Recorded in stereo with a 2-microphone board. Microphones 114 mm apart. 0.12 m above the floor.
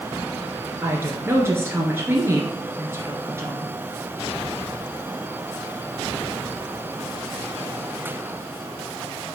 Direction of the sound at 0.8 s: 20° right (ahead or behind).